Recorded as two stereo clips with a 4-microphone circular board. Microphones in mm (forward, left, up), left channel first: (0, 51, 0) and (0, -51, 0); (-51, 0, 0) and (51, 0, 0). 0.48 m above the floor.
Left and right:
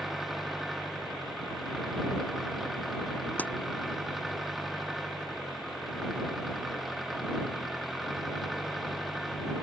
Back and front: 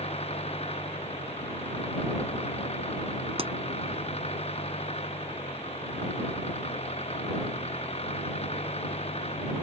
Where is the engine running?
Straight behind.